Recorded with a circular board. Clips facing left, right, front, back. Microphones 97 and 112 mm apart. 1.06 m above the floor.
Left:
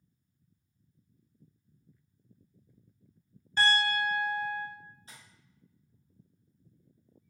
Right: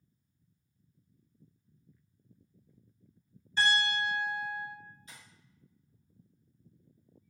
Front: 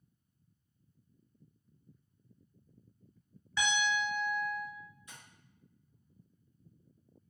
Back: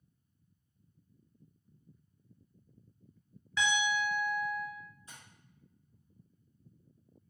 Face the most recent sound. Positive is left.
turn(degrees=130)